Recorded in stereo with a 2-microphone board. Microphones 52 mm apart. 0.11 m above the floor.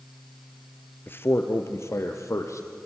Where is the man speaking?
40° left (ahead or behind), 1.8 m; by 2.7 s 70° left (ahead or behind), 3.5 m.